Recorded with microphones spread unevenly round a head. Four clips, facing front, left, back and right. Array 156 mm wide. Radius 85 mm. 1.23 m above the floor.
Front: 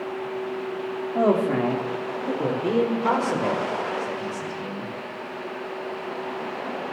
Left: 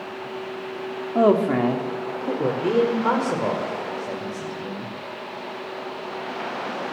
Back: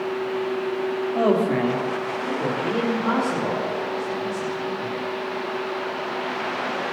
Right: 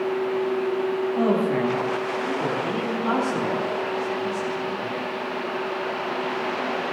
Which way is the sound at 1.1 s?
85° left.